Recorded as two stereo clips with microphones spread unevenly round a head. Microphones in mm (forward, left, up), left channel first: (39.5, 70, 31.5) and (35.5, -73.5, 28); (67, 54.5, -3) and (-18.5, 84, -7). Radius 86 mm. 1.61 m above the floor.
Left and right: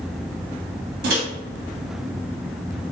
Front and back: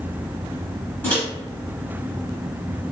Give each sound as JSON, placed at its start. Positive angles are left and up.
{"t": 1.0, "sound": "a microwave", "azimuth_deg": -90, "distance_m": 1.1}